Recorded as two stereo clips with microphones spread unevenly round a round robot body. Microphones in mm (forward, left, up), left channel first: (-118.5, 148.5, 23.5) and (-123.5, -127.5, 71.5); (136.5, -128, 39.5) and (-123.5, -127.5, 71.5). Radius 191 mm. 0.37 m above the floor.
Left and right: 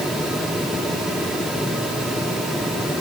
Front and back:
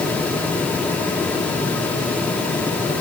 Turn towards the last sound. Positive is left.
No sound to turn to.